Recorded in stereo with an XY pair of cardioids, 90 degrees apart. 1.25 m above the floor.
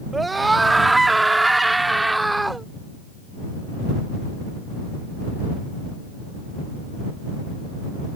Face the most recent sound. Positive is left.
turn(degrees=-10)